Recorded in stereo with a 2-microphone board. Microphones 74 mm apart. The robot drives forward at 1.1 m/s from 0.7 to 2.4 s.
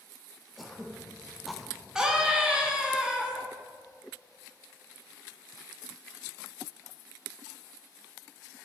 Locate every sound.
0.6 s throat clearing: centre (ahead or behind), 1.2 m
1.9 s a scream: 10° right (ahead or behind), 2.5 m; by 3.4 s 15° right (ahead or behind), 1.9 m